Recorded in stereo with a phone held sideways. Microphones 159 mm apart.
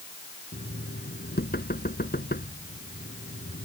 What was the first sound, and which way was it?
Knocking, 80° left.